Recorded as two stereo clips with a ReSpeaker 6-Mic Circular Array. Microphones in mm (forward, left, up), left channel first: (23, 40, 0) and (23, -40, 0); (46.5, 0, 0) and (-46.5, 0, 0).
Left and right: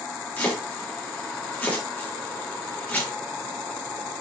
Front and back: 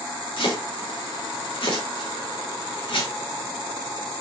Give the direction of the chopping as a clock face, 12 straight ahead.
11 o'clock.